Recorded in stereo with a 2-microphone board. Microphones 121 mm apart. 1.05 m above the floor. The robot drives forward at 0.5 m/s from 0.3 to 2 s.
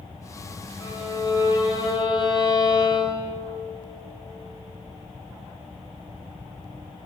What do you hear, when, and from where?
0.8 s a violin: 30° left (ahead or behind), 4 m; by 3.3 s 35° left (ahead or behind), 3.5 m